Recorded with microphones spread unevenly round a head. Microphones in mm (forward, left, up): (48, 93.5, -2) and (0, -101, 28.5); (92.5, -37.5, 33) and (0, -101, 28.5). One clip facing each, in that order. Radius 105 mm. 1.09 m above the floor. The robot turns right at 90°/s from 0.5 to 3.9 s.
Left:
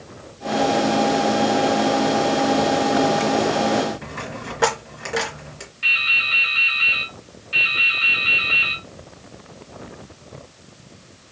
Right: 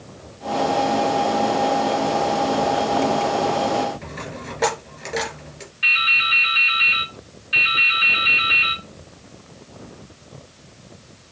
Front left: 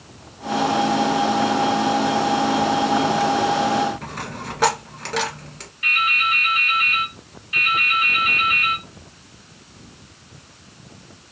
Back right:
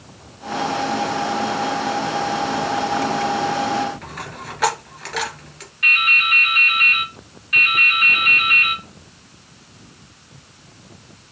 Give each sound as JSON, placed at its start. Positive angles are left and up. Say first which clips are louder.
{"t": 4.0, "sound": "a dropped coin", "louder": "left 1 dB, front left 2 dB", "azimuth_deg": -10, "distance_m": 2.0}
{"t": 5.8, "sound": "dripping", "louder": "right 3 dB, even", "azimuth_deg": -170, "distance_m": 1.2}